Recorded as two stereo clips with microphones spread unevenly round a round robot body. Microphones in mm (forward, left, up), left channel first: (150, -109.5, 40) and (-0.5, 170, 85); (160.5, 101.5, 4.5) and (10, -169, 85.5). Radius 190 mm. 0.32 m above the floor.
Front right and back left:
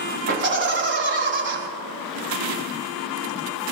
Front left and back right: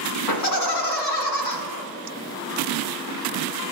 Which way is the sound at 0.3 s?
65° left.